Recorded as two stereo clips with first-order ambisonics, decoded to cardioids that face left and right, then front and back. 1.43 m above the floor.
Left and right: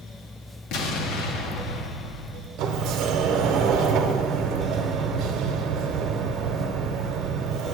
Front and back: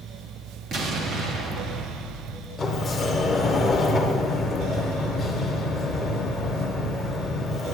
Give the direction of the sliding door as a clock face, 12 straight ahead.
2 o'clock.